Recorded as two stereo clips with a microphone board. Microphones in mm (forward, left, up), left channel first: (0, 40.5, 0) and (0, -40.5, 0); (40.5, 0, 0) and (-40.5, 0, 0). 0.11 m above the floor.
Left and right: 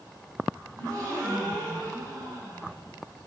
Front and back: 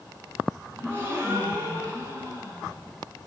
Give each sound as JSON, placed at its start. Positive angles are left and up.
{"t": 0.8, "sound": "a gasp", "azimuth_deg": -120, "distance_m": 4.0}